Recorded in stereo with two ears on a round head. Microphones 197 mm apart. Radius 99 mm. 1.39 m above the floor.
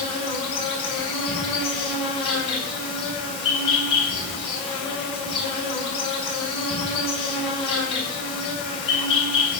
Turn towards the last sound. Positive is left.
turn(degrees=25)  # may be behind; listen again after turning